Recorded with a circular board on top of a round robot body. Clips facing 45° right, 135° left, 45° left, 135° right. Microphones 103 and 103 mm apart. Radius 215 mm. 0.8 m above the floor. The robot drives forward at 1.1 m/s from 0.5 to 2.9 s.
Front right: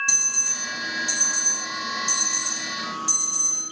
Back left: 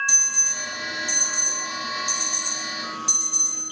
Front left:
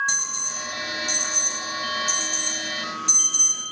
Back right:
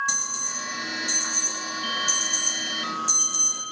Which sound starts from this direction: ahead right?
An alarm, at 0.1 s.